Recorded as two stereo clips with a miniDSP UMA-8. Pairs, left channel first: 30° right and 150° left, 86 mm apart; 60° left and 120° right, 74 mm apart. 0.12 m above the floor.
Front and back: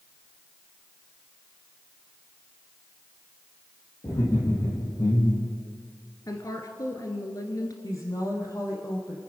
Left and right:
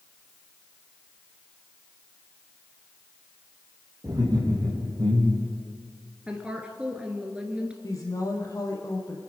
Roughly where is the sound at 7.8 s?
Ahead.